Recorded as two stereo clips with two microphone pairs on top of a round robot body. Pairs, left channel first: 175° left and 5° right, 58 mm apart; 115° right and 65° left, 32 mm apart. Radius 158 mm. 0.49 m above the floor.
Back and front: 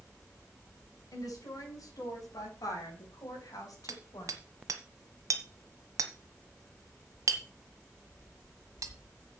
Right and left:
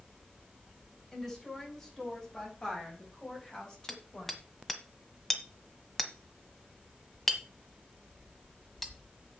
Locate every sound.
1.1 s a woman speaking: 170° left, 6 m; by 4.4 s straight behind, 4 m
3.9 s hammering: 35° right, 1.4 m